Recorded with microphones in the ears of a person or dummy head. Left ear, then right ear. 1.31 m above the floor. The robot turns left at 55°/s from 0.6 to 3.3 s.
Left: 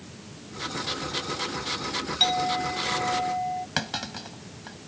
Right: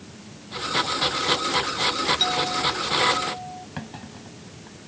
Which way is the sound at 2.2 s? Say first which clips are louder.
Right 1 dB; 175° left.